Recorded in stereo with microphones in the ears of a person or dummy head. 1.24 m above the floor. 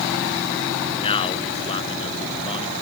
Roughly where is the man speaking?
Left.